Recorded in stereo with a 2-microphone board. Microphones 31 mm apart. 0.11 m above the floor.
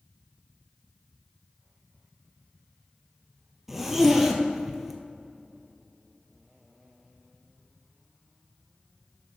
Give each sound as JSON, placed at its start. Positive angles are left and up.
{"t": 3.7, "sound": "a zipper", "side_deg": -10, "distance_m": 1.1}